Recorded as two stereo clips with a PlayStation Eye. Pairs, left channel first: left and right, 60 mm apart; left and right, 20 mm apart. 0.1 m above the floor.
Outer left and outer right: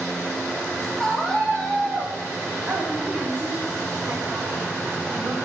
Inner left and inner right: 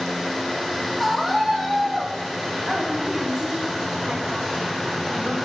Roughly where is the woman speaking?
Right.